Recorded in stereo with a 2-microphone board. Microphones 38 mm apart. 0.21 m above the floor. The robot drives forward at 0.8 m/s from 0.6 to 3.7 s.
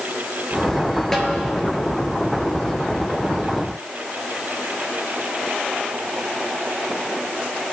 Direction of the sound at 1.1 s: 10° left (ahead or behind).